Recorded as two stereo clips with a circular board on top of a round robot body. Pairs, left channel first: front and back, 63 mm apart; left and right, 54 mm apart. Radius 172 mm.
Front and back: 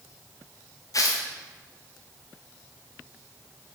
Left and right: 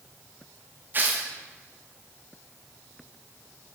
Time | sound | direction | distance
0.9 | tearing paper | 35° right | 0.7 m